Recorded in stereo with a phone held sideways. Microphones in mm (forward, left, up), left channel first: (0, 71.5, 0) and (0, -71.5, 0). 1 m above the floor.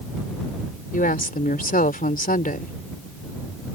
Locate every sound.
0.9 s a woman speaking: 85° left